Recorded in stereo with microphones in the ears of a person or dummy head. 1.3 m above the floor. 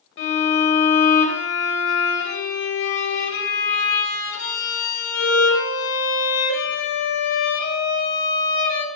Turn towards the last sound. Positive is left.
turn(degrees=65)  # may be behind; listen again after turning